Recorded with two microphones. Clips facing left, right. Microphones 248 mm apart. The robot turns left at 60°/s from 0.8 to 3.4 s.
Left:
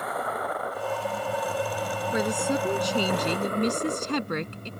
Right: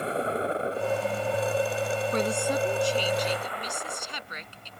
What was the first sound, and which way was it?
A vehicle, 30° right (ahead or behind).